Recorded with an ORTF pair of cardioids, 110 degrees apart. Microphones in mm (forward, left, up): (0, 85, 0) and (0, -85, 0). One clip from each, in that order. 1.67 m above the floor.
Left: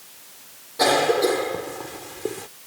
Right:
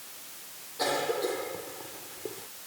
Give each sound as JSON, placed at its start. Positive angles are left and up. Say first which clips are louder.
{"t": 0.8, "sound": "a cough", "louder": "left 11 dB", "azimuth_deg": 60}